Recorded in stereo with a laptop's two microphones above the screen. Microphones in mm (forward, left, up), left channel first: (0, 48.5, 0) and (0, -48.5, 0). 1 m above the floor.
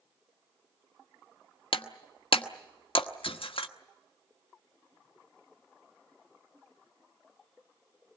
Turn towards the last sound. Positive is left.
turn(degrees=65)  # may be behind; listen again after turning